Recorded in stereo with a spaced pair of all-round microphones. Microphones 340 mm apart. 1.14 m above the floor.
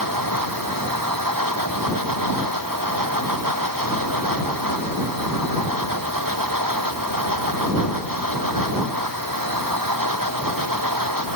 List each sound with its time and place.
0.0 s a machine running: 70° right (ahead or behind)